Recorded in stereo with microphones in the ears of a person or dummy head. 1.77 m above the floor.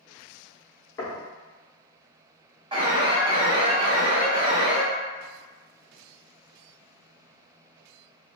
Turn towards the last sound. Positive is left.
turn(degrees=-25)  # may be behind; listen again after turning